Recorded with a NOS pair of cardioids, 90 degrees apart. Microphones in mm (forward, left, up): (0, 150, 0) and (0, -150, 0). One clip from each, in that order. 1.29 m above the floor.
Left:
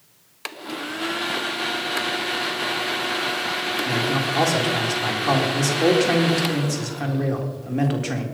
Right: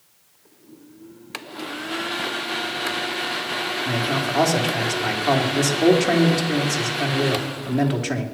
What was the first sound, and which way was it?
A man speaking, 15° right.